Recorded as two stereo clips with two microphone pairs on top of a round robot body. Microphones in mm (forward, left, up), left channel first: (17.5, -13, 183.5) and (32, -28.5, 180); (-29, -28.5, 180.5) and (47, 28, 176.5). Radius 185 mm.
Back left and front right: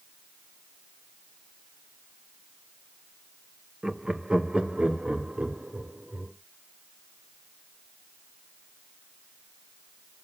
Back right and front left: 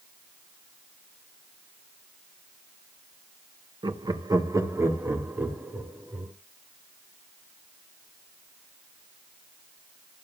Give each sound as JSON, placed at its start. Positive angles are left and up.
{"t": 3.8, "sound": "laughter", "azimuth_deg": 5, "distance_m": 1.8}